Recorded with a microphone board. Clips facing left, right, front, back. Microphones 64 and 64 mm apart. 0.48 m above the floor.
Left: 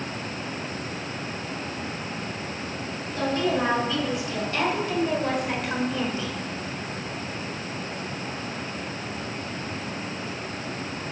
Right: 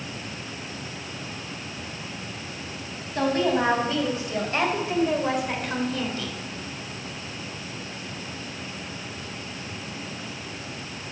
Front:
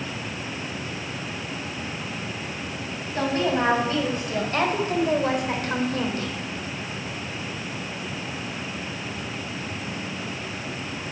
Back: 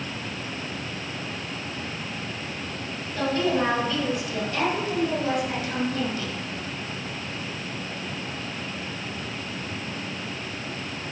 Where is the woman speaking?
50° right, 4 m; by 6.3 s 30° left, 2 m.